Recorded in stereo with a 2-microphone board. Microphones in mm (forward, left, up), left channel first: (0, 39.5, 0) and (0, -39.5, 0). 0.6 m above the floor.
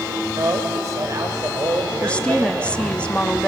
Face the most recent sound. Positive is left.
turn(degrees=15)  # may be behind; listen again after turning